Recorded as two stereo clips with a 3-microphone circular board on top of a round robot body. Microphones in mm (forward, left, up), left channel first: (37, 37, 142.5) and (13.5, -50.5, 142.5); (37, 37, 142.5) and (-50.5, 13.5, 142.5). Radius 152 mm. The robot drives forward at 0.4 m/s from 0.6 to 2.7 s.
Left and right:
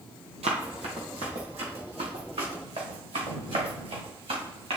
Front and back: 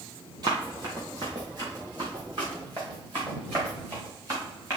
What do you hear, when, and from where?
0.4 s running footsteps: 110° right, 1.0 m